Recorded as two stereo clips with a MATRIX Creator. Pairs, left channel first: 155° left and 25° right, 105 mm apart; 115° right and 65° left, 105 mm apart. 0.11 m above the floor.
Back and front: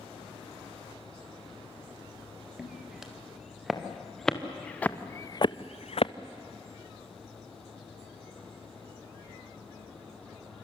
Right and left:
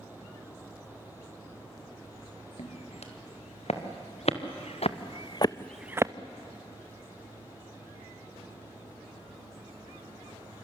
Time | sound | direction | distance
2.6 | footsteps | 110° right | 3.5 m